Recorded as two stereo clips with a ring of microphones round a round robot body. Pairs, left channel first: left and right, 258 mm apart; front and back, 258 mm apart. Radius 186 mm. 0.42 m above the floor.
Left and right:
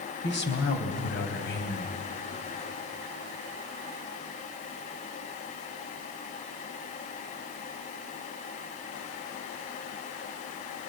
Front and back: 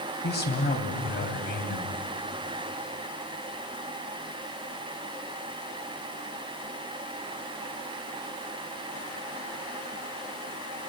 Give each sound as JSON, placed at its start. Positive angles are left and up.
{"t": 0.2, "sound": "a man speaking", "azimuth_deg": 50, "distance_m": 3.0}